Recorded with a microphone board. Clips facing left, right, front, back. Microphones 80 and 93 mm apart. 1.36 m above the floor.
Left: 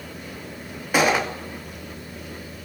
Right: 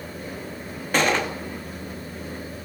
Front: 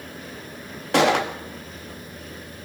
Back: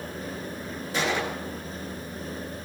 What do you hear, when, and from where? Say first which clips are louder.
0.9 s a gunshot: left 2 dB, front 9 dB; 10° left, 2.5 m